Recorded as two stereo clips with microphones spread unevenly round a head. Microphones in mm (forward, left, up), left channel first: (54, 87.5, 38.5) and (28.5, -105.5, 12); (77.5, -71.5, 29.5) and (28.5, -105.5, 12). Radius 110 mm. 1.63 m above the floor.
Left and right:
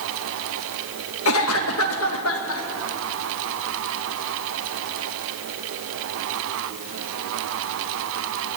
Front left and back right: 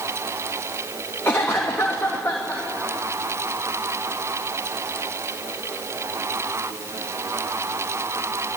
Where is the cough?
115° left, 2.5 m.